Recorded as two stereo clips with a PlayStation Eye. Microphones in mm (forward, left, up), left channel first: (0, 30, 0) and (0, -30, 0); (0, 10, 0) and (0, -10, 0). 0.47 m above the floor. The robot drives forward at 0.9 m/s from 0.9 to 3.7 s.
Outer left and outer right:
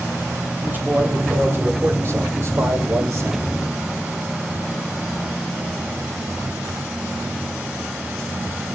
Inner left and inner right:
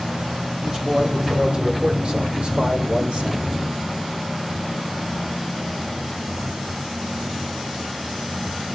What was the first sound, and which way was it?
A man speaking, 30° right (ahead or behind).